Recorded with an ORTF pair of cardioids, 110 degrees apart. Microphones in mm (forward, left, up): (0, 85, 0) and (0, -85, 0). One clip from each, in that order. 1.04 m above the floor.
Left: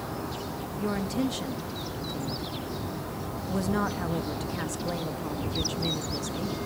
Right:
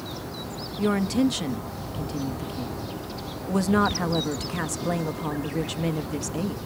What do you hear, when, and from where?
0.8 s a woman speaking: 35° right, 1.3 m